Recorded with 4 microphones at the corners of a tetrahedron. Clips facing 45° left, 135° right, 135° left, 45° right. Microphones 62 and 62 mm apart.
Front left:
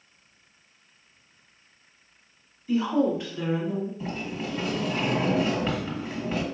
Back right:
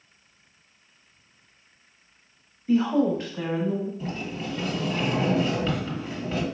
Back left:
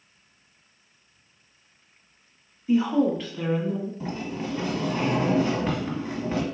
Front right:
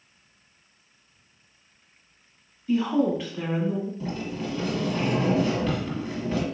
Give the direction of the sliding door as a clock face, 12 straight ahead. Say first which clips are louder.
Even, even; 8 o'clock.